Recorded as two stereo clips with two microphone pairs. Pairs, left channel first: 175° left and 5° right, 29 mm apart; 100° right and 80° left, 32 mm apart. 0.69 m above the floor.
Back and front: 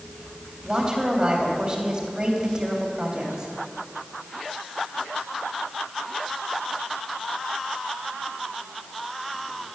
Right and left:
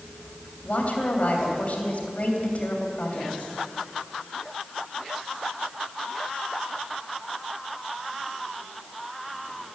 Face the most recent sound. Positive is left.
turn(degrees=-60)